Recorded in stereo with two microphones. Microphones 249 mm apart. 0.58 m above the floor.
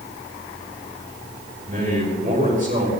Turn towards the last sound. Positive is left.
turn(degrees=-35)  # may be behind; listen again after turning